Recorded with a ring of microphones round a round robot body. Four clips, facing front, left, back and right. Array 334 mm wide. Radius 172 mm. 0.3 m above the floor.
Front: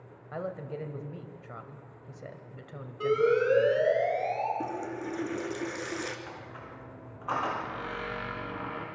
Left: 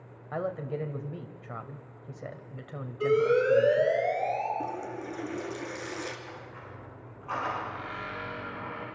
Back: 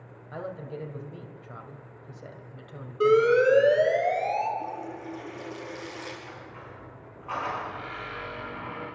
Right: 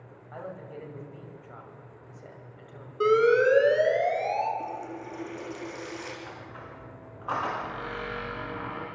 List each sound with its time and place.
0.3 s a woman speaking: 80° left, 2.0 m
3.0 s an alarm: 130° right, 5 m
4.6 s a running tap: 20° left, 3.5 m
6.3 s a squeak: 50° right, 8 m